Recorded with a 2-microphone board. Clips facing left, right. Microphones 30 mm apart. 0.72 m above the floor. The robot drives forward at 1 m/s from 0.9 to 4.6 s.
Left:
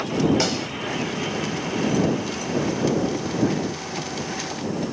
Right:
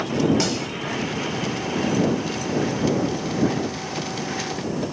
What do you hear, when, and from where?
0.4 s a snare drum: 10° left (ahead or behind)